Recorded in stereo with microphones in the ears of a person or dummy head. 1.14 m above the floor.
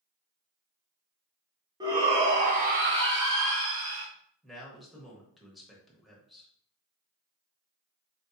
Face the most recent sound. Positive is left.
turn(degrees=0)  # may be behind; listen again after turning